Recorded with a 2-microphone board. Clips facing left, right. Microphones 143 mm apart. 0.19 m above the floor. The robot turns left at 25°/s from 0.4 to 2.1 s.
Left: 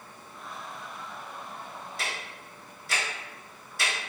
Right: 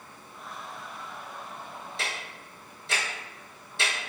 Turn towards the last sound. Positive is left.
turn(degrees=-25)  # may be behind; listen again after turning